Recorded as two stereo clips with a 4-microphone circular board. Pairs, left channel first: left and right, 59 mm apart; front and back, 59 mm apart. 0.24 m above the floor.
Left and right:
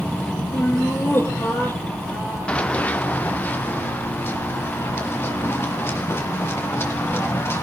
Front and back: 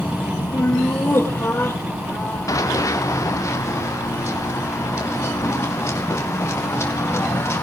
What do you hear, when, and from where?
0.5 s laughter: 45° left, 7.5 m
2.5 s running footsteps: 20° left, 1.3 m; by 7.6 s 45° left, 6.5 m